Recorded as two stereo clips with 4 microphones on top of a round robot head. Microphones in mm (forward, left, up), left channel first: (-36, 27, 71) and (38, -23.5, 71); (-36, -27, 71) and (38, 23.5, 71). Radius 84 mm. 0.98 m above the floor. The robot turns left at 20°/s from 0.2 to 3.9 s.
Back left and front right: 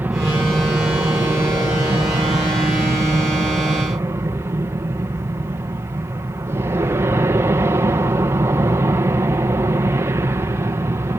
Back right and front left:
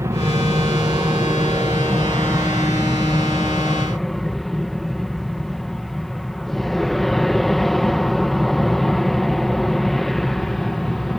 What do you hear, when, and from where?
0.0 s an aircraft: 15° left; by 11.2 s 60° right